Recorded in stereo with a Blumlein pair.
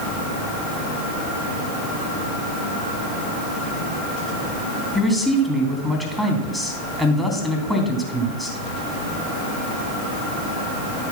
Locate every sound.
5.0 s a man speaking: 5° right, 3 m